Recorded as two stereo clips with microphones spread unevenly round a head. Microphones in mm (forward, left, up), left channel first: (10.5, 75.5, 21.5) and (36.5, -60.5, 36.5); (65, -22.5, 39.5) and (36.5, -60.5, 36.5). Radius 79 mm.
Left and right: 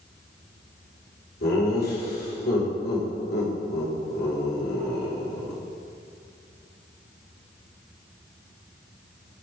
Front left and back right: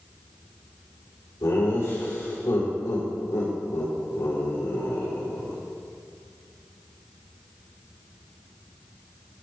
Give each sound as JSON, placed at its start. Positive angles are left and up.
{"t": 1.4, "sound": "laughter", "azimuth_deg": 95, "distance_m": 4.5}